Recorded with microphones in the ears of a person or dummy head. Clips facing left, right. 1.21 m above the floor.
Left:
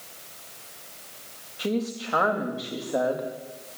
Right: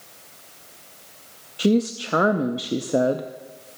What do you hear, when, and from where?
1.6 s a woman speaking: 40° right (ahead or behind), 0.5 m